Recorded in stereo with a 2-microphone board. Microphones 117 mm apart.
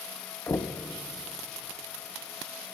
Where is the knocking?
25° left (ahead or behind), 0.5 m.